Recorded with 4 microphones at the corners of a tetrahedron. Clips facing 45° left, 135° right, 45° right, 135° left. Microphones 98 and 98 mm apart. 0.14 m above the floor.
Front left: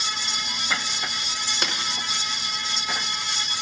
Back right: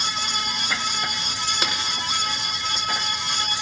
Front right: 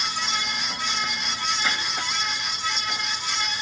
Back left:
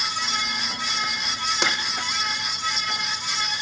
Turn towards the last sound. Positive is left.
turn(degrees=135)